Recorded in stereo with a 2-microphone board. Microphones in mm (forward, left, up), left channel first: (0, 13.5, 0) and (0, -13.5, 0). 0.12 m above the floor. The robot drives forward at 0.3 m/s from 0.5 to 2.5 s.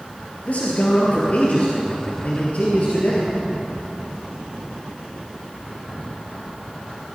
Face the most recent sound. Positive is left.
turn(degrees=50)  # may be behind; listen again after turning